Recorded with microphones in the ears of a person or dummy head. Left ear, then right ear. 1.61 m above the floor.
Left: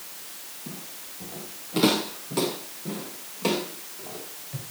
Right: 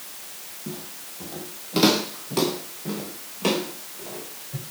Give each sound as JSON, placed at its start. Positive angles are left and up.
{"t": 0.7, "sound": "footsteps", "side_deg": -25, "distance_m": 3.0}